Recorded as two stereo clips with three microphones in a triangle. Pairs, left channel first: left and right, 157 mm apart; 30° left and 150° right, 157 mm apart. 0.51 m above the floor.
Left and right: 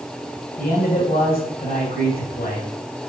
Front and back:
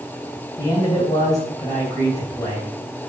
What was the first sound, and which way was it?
A man speaking, 95° left.